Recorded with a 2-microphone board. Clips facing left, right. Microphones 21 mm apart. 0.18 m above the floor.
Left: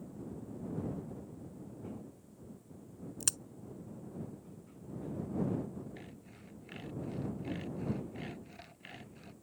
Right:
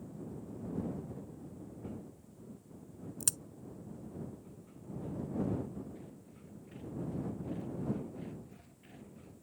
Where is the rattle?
No rattle in this recording.